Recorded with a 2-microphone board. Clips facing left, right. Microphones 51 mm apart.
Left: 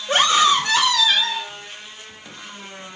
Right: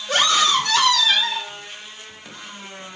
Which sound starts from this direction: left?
A scream, at 0.1 s.